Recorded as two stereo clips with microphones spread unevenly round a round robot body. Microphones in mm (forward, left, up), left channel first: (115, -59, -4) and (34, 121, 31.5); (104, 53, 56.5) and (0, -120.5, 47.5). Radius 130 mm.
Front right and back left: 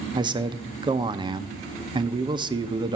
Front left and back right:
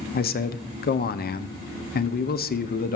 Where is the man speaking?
45° left, 0.6 m.